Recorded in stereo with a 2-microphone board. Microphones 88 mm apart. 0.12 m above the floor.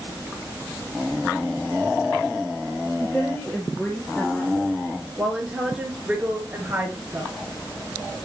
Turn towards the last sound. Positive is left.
turn(degrees=-35)  # may be behind; listen again after turning